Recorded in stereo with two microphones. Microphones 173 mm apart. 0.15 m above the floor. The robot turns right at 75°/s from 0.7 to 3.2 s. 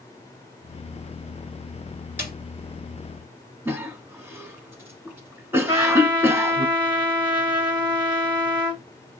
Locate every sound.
2.2 s a snare drum: 10° right (ahead or behind), 2.5 m; by 2.3 s 20° right (ahead or behind), 2.5 m
3.6 s a cough: 15° right (ahead or behind), 1.3 m
5.7 s a trumpet: 25° right (ahead or behind), 1.6 m